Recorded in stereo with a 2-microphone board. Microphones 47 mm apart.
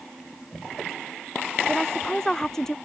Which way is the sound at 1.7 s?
10° left (ahead or behind).